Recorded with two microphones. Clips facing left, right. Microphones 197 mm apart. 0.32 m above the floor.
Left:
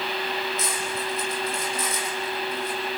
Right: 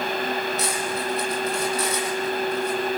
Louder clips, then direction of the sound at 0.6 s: Right 3 dB; 70° right (ahead or behind).